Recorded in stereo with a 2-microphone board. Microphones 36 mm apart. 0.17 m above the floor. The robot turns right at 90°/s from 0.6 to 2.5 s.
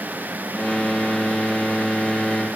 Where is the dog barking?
No dog barking in this recording.